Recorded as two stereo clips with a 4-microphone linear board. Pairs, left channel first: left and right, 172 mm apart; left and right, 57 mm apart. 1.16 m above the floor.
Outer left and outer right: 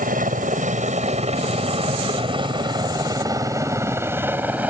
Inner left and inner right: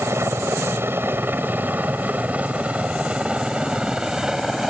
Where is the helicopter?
50° right (ahead or behind); by 4.7 s 10° right (ahead or behind).